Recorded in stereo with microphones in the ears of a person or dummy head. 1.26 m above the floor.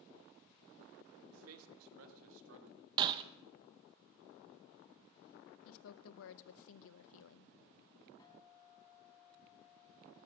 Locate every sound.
1.3 s a man speaking: 85° right, 1.5 m; by 2.9 s 75° right (ahead or behind), 2.5 m
3.0 s breaking glass: 30° right (ahead or behind), 0.6 m
5.7 s a woman speaking: 75° left (ahead or behind), 0.6 m
8.2 s a guitar: 25° left (ahead or behind), 4 m